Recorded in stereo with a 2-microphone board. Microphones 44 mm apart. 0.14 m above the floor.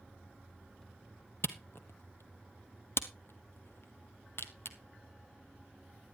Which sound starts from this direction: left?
A camera shutter, at 1.4 s.